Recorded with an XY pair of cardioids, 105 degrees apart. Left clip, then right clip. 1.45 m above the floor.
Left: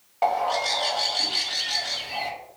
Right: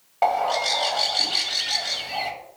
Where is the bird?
20° right, 0.7 m.